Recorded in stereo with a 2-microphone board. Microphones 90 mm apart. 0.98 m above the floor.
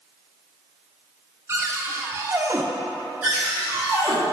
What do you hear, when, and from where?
1.5 s a cupboard door: 30° right (ahead or behind), 0.7 m
3.2 s a cupboard door: 20° right (ahead or behind), 2.5 m